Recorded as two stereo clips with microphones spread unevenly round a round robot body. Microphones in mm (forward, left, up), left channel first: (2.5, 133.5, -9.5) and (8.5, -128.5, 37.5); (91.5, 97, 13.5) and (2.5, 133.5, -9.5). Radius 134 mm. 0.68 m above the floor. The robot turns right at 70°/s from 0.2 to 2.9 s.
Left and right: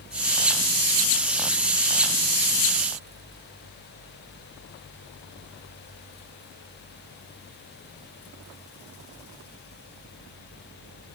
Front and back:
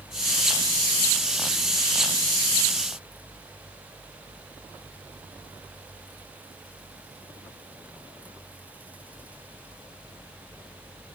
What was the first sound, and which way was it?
Only background noise.